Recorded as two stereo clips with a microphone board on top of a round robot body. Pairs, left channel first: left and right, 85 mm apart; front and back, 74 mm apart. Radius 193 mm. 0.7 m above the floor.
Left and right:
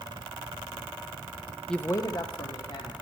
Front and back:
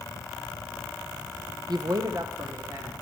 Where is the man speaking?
175° left, 0.6 m; by 2.9 s 120° left, 2 m.